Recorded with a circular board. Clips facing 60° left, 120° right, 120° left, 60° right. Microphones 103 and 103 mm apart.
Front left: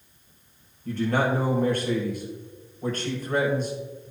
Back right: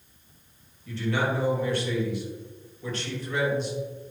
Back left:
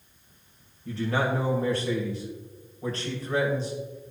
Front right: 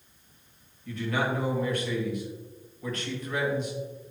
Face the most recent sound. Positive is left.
turn(degrees=75)